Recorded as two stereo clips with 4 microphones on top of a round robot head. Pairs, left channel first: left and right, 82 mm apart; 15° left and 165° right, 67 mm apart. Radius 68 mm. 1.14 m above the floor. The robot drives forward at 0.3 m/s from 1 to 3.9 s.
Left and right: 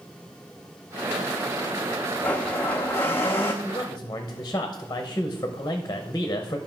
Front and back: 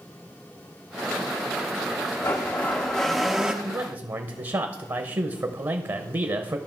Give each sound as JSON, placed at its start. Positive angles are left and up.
{"t": 2.2, "sound": "a blender", "azimuth_deg": 30, "distance_m": 0.6}
{"t": 3.6, "sound": "a man speaking", "azimuth_deg": 145, "distance_m": 0.8}